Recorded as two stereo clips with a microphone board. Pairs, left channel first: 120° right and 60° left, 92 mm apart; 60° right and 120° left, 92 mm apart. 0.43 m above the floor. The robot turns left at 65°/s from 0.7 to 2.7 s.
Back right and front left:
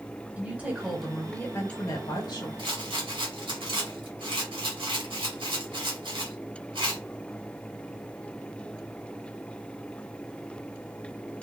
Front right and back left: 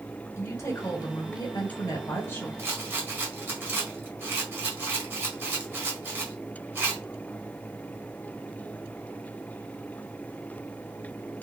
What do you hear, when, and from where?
0.4 s a woman speaking: 10° right, 1.5 m; by 2.5 s 125° right, 1.5 m
2.6 s a rattle: 65° left, 1.5 m; by 7.0 s 55° left, 1.5 m